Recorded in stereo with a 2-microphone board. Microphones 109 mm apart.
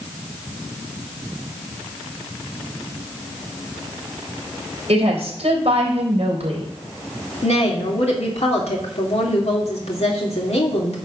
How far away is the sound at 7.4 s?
About 2.5 m.